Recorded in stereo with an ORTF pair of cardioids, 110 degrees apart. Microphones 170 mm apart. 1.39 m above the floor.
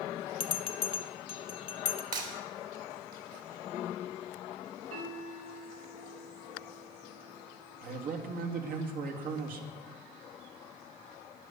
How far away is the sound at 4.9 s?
About 4.5 m.